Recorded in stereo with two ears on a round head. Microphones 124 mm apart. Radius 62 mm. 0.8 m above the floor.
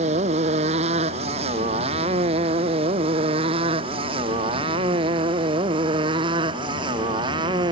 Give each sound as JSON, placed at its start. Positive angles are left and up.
{"t": 0.0, "sound": "a motorcycle", "side_deg": -50}